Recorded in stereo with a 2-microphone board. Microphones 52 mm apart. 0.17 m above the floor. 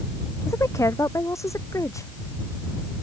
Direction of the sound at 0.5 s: 80° left.